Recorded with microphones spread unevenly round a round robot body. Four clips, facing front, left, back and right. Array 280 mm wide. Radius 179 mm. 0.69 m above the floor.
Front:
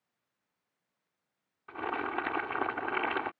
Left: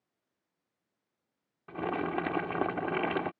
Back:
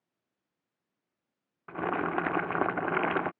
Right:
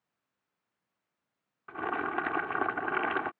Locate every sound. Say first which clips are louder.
1.7 s boiling: left 1 dB, back 4 dB; 150° left